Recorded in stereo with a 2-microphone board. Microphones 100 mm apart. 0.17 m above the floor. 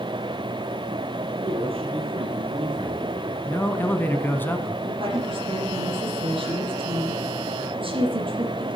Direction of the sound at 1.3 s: 75° right (ahead or behind).